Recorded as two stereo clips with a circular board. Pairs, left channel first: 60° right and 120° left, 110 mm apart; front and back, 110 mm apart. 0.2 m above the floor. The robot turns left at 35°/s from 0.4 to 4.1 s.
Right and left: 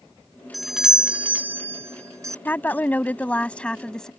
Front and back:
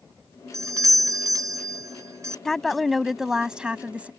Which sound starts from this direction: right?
A woman speaking, at 2.5 s.